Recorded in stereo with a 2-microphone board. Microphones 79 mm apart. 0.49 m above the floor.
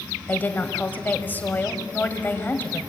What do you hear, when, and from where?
0.3 s a woman speaking: 25° left (ahead or behind), 2 m